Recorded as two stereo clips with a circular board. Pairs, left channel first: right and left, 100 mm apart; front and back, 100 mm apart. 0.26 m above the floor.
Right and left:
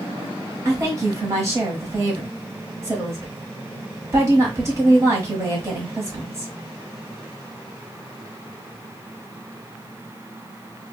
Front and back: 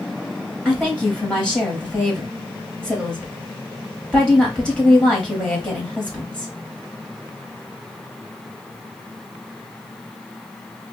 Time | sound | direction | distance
0.7 | a woman speaking | 70° left | 1.2 m